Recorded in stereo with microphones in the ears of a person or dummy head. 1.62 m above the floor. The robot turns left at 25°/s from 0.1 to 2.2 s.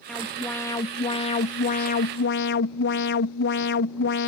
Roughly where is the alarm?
Behind.